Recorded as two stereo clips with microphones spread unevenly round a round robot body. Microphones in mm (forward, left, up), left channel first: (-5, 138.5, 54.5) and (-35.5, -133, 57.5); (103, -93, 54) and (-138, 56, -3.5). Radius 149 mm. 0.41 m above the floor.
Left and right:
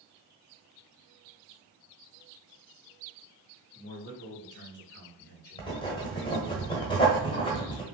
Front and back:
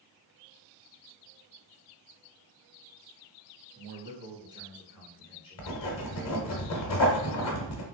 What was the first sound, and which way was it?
A man speaking, 135° left.